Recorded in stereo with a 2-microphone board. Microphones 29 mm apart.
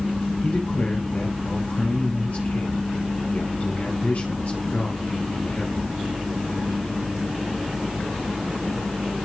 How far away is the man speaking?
About 5 m.